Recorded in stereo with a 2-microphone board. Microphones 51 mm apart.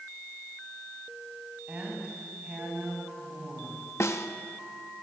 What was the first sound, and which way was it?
A woman speaking, 30° right (ahead or behind).